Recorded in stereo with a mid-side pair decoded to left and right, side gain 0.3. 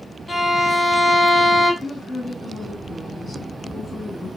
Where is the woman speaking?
35° left, 2.5 m.